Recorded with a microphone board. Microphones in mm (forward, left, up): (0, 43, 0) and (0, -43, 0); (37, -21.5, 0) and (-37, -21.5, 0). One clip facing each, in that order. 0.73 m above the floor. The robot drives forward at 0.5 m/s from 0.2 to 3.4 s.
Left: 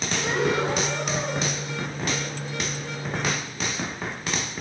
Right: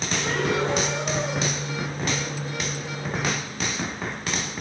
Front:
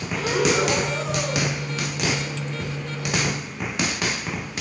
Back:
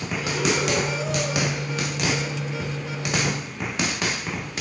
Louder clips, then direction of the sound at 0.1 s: Left 1 dB, front 4 dB; 10° left.